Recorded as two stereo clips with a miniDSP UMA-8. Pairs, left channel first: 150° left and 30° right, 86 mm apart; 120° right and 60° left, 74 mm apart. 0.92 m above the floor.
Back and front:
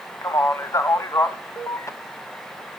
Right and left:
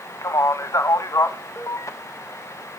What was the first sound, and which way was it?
A man speaking, 160° right.